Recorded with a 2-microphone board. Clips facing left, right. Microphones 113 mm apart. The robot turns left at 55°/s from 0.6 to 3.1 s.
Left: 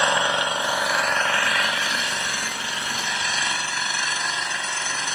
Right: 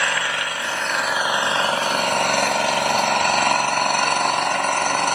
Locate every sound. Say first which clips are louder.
0.0 s an engine running: left 3 dB; 25° left, 1.0 m; by 5.2 s 115° right, 1.0 m